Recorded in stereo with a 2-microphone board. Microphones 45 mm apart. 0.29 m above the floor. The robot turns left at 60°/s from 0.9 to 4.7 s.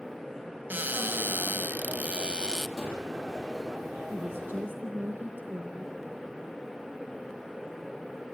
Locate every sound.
0.7 s a cupboard door: 65° right, 0.7 m; by 2.7 s 170° right, 0.7 m
2.8 s a gunshot: 5° left (ahead or behind), 9 m; by 3.0 s 10° right (ahead or behind), 9 m
4.1 s a woman speaking: 90° right, 2.5 m; by 6.0 s 125° right, 2.5 m